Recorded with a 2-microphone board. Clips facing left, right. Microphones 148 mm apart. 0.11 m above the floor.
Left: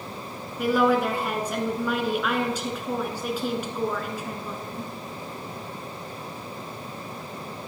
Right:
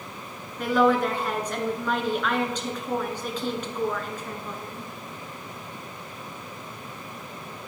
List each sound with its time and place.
0.6 s a woman speaking: 10° left (ahead or behind), 1.1 m